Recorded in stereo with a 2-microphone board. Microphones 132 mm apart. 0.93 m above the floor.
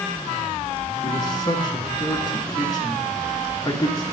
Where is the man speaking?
55° left (ahead or behind), 1.6 m.